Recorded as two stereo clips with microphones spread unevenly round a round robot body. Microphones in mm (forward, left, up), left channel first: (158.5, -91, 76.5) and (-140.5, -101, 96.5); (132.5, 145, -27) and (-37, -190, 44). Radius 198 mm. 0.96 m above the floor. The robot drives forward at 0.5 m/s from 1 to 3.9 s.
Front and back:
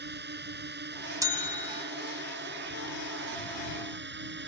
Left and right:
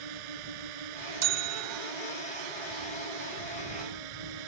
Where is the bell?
100° right; by 1.9 s 105° right.